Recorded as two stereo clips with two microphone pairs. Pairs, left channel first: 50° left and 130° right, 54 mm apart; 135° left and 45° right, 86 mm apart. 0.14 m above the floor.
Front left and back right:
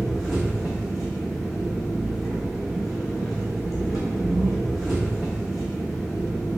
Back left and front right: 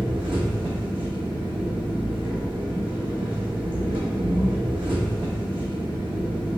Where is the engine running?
40° right, 1.5 m.